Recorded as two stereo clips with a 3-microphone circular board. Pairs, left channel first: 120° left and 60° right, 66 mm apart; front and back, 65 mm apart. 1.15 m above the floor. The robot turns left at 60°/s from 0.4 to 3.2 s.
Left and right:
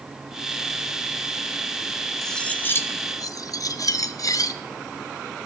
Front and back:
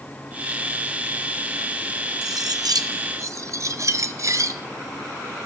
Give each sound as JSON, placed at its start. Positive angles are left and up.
{"t": 2.2, "sound": "cutlery clinking", "azimuth_deg": -155, "distance_m": 0.5}